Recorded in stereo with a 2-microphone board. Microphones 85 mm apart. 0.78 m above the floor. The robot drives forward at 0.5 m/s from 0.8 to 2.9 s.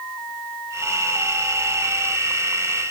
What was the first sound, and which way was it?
Only background noise.